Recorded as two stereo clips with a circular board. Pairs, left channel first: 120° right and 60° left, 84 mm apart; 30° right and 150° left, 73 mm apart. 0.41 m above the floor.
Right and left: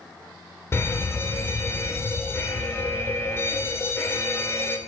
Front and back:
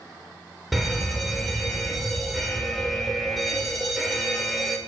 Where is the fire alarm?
120° right, 2.5 m.